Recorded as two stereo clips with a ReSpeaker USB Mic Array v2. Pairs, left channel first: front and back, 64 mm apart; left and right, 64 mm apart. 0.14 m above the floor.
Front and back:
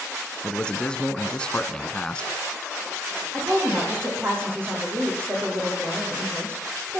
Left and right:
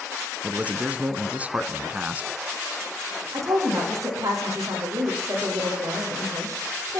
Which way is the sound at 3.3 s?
130° right.